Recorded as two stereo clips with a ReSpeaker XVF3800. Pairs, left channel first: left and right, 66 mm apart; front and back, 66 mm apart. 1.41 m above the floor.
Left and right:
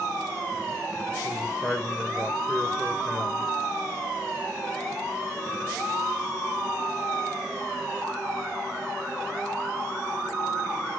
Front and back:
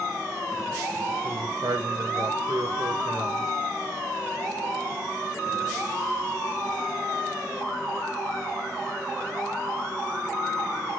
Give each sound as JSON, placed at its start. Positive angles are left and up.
{"t": 1.2, "sound": "a man speaking", "azimuth_deg": 175, "distance_m": 1.0}